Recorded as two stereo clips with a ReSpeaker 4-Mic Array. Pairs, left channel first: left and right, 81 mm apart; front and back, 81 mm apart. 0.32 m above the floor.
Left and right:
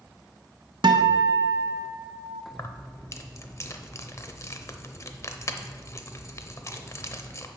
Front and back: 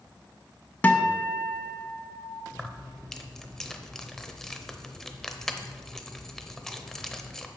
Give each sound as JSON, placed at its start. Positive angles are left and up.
{"t": 0.8, "sound": "a guitar", "azimuth_deg": -70, "distance_m": 0.7}
{"t": 2.5, "sound": "keys jangling", "azimuth_deg": 80, "distance_m": 0.7}